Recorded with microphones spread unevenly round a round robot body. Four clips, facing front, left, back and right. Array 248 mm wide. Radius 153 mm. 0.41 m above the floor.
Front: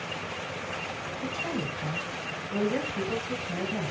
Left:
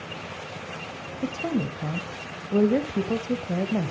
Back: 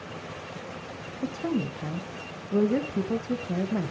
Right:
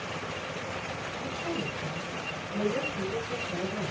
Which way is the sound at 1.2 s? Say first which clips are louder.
Left 8 dB, back 5 dB; 110° left.